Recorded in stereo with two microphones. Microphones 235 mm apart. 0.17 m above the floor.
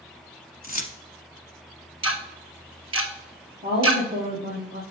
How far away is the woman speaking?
About 3 m.